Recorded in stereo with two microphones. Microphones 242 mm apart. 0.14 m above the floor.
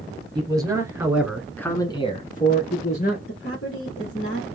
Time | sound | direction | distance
0.3 | a man speaking | 15° right (ahead or behind) | 2.5 m
3.3 | a woman speaking | 55° left (ahead or behind) | 2 m